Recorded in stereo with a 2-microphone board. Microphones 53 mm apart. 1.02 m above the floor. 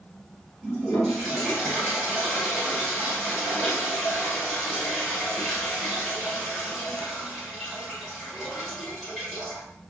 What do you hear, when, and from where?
0.6 s a toilet flushing: centre (ahead or behind), 1.9 m